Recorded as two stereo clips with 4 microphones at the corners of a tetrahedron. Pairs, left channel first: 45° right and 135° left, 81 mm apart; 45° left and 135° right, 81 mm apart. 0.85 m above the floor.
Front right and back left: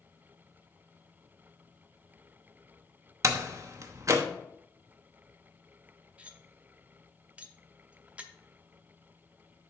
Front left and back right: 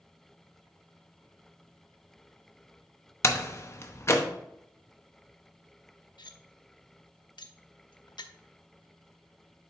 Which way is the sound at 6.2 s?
60° left.